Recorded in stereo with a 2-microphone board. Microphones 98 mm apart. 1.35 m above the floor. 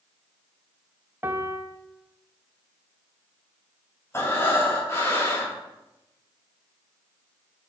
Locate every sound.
1.2 s a piano: 25° right (ahead or behind), 0.8 m
4.1 s breathing: 30° left (ahead or behind), 2.5 m